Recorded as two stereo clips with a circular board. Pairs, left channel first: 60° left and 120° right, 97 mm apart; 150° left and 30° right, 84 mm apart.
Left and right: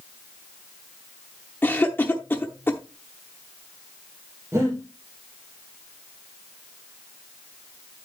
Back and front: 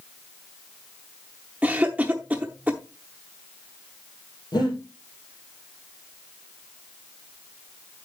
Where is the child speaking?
No child speaking in this recording.